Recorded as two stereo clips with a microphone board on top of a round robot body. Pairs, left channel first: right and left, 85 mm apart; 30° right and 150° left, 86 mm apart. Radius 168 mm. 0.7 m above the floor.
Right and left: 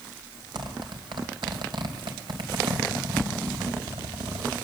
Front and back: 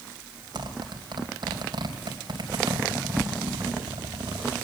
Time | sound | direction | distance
0.6 | a zipper | 115° left | 3 m